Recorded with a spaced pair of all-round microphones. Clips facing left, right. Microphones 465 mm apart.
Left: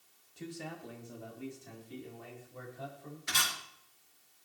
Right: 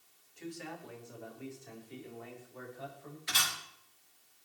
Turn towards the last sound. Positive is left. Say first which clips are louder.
# even
turn(degrees=60)  # may be behind; listen again after turning